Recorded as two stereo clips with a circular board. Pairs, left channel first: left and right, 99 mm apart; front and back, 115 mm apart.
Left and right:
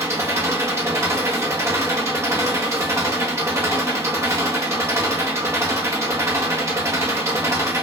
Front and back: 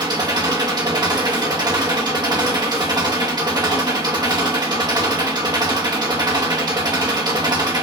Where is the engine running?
140° right, 1.1 m.